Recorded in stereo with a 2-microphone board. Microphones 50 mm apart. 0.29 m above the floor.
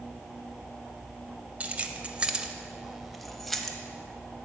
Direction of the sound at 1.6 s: 30° right (ahead or behind).